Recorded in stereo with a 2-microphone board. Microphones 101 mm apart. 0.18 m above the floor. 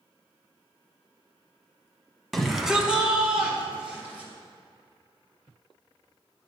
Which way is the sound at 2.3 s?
Centre (ahead or behind).